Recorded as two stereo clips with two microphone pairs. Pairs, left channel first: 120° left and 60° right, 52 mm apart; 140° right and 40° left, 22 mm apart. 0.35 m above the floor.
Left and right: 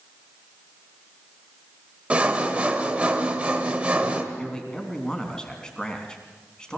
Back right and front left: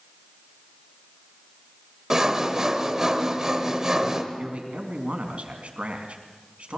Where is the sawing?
5° right, 1.8 m.